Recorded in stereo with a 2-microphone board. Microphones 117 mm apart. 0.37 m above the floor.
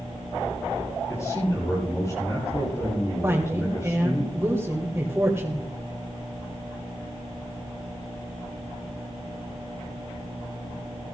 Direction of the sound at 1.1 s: 25° left (ahead or behind).